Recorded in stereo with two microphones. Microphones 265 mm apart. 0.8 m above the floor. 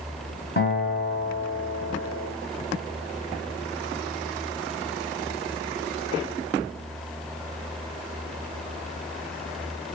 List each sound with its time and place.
0.6 s a guitar: 40° left (ahead or behind), 2.0 m